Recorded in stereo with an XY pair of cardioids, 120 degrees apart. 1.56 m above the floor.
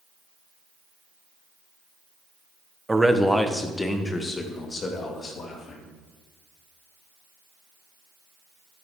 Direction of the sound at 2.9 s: 10° right.